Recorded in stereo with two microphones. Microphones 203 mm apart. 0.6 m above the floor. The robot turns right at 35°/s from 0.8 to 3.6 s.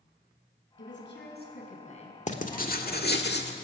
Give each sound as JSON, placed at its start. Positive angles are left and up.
{"t": 0.8, "sound": "a woman speaking", "azimuth_deg": 100, "distance_m": 5.5}
{"t": 2.3, "sound": "writing", "azimuth_deg": 45, "distance_m": 1.5}